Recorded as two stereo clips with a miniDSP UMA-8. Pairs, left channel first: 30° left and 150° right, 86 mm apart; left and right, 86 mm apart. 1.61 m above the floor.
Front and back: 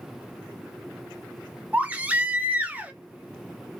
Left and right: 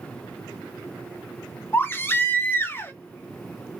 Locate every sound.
1.7 s a baby crying: 145° left, 0.8 m